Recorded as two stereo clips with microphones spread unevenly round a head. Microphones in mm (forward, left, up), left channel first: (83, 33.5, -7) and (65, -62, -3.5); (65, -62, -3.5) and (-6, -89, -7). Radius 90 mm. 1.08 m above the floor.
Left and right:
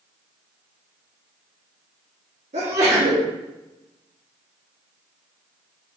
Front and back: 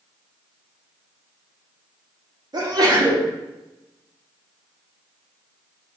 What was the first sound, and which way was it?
A sneeze, 130° right.